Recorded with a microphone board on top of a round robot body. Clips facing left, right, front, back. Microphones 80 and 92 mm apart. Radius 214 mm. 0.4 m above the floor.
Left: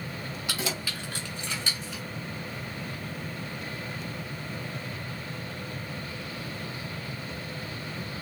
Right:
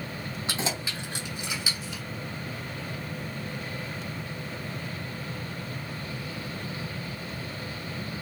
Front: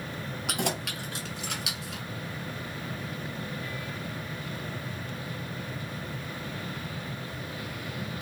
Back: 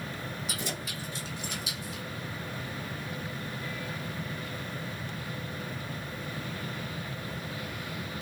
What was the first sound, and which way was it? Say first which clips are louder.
Keys jangling: right 2 dB, front 5 dB; 30° right.